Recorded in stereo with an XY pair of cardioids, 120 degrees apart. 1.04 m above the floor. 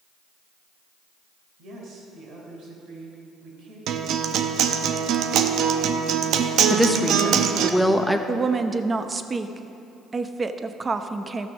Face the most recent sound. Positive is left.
turn(degrees=-25)